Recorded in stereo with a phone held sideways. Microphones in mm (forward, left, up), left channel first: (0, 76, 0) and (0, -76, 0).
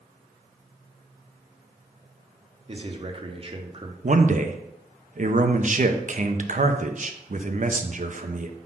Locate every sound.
2.7 s a man speaking: 35° right (ahead or behind), 0.9 m
4.0 s a man speaking: 55° right (ahead or behind), 0.7 m